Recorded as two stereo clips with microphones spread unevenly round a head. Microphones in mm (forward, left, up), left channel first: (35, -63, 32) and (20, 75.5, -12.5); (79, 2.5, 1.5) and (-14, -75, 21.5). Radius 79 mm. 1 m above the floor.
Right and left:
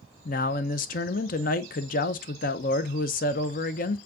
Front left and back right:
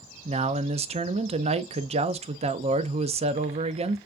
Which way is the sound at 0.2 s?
115° right.